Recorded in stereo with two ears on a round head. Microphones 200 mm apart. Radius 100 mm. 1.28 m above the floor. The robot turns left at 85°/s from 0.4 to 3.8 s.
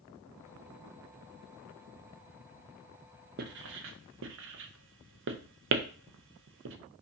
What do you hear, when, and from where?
3.4 s writing: 45° right (ahead or behind), 0.5 m; by 6.8 s 60° right (ahead or behind), 0.5 m